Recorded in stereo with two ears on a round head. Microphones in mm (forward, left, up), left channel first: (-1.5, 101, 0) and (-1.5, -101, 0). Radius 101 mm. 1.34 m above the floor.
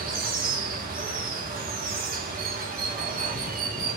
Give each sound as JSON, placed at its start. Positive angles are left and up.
{"t": 0.0, "sound": "running water", "side_deg": -40, "distance_m": 0.8}